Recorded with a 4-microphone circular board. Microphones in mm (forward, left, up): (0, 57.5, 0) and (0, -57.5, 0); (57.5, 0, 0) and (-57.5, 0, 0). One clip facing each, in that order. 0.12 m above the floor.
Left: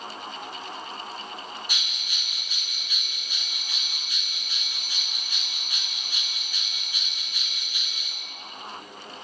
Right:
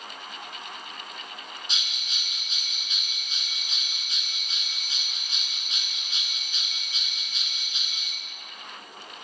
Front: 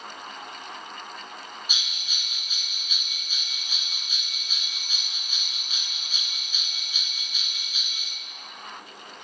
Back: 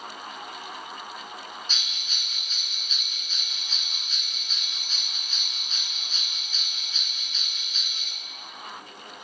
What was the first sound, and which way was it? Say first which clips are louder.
A bell: left 1 dB, even; 65° right.